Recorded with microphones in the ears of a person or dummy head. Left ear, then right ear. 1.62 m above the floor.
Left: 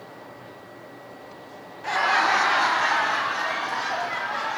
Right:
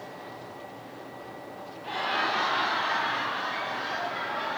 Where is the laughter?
55° left (ahead or behind), 1.6 m; by 4.6 s 70° left (ahead or behind), 3 m.